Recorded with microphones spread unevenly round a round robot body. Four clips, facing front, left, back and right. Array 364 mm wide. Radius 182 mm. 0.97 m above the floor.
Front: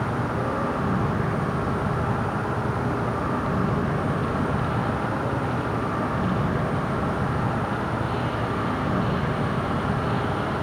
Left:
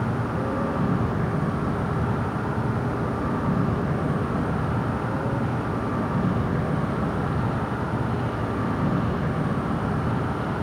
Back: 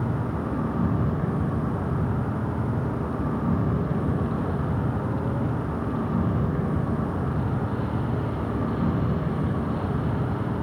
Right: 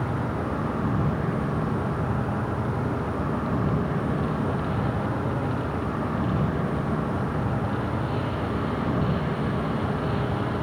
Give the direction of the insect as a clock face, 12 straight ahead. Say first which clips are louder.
Left 2 dB, front 3 dB; 7 o'clock.